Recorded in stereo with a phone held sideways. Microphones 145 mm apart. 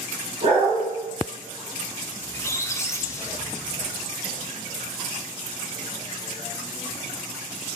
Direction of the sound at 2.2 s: 20° left (ahead or behind).